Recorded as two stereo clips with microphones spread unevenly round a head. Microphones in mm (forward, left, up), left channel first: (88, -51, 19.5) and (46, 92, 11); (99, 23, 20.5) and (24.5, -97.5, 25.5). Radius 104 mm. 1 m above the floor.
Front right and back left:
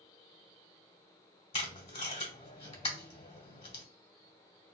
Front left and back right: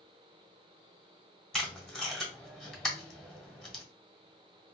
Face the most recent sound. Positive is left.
turn(degrees=-30)